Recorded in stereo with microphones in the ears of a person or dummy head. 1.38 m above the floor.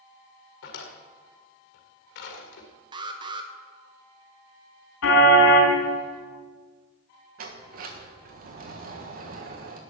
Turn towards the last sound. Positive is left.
turn(degrees=-55)  # may be behind; listen again after turning